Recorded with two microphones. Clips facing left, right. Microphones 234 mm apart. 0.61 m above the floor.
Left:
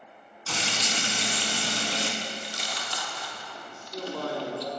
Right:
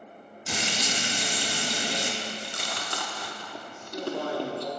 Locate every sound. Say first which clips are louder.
0.5 s frying: right 1 dB; 15° right (ahead or behind), 0.8 m
2.2 s chewing: right 1 dB; 60° right (ahead or behind), 0.9 m
3.7 s a man speaking: right 3 dB; 20° right (ahead or behind), 1.9 m